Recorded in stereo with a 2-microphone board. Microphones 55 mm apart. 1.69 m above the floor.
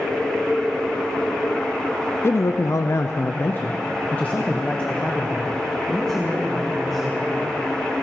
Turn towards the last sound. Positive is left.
turn(degrees=5)  # may be behind; listen again after turning